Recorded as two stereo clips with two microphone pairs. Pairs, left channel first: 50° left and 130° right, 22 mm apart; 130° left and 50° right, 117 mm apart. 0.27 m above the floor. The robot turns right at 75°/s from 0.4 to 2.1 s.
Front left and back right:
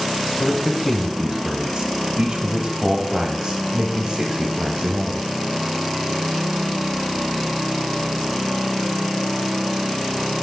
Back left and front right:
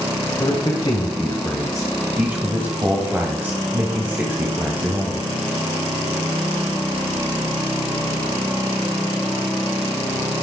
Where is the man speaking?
115° left, 1.2 m; by 5.3 s 115° right, 1.2 m.